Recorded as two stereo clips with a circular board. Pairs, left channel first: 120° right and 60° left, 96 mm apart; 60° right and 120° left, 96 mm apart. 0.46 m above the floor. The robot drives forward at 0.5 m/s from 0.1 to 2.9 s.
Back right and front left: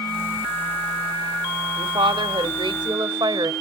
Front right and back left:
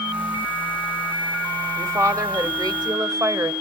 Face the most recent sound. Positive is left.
turn(degrees=85)